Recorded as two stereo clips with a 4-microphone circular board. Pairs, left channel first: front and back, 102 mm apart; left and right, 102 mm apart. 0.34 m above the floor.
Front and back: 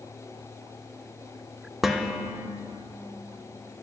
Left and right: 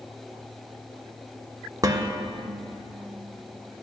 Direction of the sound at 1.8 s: 95° right.